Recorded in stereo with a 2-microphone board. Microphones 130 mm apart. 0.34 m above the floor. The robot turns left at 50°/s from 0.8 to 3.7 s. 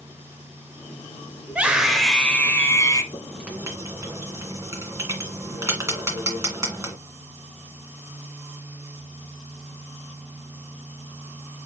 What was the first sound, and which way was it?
A scream, 155° right.